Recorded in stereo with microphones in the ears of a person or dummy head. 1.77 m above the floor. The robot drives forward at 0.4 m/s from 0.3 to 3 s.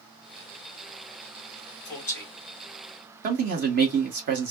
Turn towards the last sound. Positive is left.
turn(degrees=-50)  # may be behind; listen again after turning